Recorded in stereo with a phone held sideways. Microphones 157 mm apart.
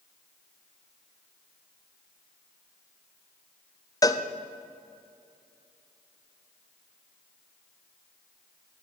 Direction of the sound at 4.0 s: 25° left (ahead or behind).